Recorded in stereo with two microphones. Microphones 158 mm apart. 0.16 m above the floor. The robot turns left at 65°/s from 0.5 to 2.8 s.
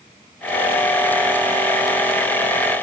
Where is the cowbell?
No cowbell in this recording.